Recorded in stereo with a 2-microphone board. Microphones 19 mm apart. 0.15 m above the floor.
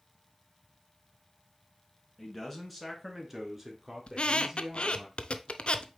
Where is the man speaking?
5° left (ahead or behind), 1.9 m; by 5.1 s 30° right (ahead or behind), 2.5 m.